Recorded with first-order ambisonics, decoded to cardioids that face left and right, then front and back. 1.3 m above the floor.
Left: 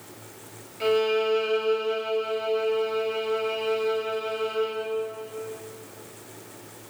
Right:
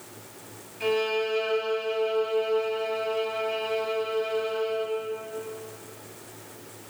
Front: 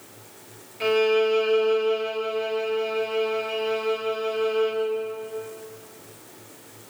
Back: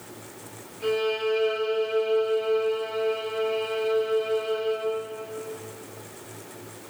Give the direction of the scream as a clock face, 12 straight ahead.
I don't hear a scream.